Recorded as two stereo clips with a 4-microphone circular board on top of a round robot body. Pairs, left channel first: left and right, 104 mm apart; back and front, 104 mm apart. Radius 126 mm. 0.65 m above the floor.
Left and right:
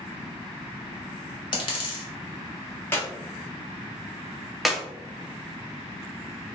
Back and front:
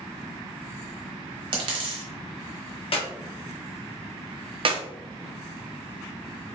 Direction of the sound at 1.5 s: 45° left.